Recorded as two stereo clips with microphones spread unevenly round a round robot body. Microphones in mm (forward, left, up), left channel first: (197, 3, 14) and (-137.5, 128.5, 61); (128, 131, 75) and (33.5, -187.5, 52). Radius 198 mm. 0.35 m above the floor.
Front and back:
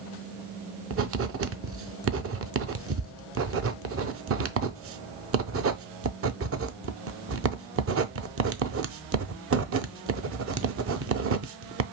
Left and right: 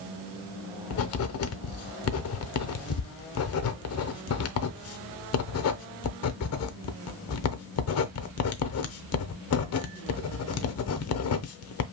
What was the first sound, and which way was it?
Writing, 110° left.